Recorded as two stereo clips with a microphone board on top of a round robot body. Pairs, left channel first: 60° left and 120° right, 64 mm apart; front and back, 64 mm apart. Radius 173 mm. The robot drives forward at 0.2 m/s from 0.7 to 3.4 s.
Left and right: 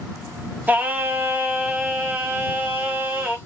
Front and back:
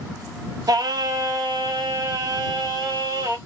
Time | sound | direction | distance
0.7 | singing | 175° left | 0.6 m